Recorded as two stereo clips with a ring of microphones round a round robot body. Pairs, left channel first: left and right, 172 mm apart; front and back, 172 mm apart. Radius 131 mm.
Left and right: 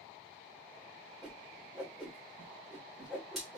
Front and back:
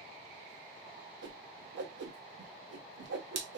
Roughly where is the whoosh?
Behind.